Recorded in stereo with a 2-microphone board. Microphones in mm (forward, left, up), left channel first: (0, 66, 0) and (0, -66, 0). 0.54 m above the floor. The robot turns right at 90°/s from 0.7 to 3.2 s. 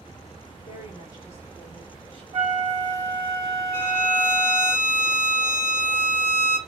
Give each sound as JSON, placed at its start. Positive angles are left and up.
{"t": 0.7, "sound": "a woman speaking", "azimuth_deg": 100, "distance_m": 2.0}
{"t": 2.3, "sound": "a flute", "azimuth_deg": -120, "distance_m": 1.0}
{"t": 3.7, "sound": "a violin", "side_deg": -60, "distance_m": 1.4}